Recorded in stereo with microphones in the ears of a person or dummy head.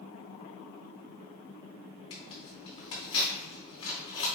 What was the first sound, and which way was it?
Tearing paper, 30° left (ahead or behind).